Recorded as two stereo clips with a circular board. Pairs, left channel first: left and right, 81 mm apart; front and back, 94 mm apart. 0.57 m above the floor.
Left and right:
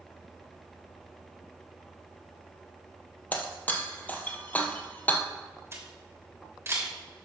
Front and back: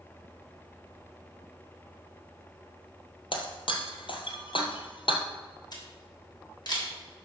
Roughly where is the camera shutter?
Ahead right.